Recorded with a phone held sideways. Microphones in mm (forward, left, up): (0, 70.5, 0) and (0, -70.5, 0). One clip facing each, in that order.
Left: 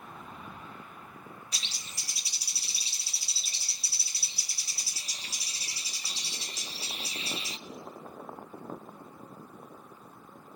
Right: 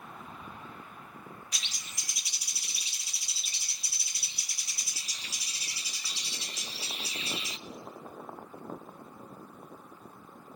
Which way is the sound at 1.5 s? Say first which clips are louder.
Left 1 dB; 30° left (ahead or behind).